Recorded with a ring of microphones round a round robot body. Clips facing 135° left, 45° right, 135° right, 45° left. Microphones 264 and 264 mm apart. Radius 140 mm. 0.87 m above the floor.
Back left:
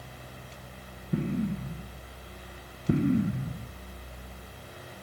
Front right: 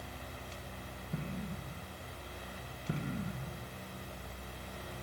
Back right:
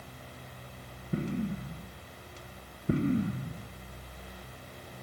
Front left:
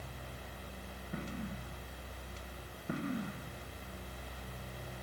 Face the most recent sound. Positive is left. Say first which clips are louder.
# back left 13 dB, back right 10 dB
turn(degrees=165)